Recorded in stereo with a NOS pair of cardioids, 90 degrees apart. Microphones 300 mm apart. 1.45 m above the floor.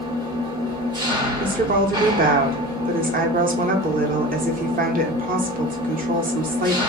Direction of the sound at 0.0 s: 15° right.